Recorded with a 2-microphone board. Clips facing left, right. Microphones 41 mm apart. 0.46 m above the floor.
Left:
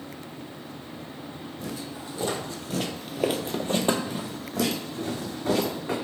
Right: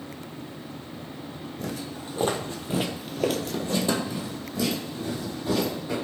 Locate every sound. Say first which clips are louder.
1.6 s footsteps: right 2 dB; 60° right (ahead or behind), 1.1 m; by 6.0 s 75° left (ahead or behind), 2.0 m